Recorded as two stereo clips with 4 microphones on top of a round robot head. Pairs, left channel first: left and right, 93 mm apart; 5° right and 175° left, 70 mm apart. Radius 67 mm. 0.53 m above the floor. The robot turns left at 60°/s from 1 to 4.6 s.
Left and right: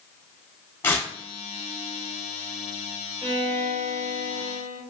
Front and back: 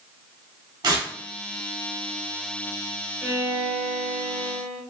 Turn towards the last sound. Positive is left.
turn(degrees=-160)